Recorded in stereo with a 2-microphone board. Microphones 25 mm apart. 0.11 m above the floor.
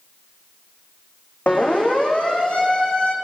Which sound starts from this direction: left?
A siren, at 1.5 s.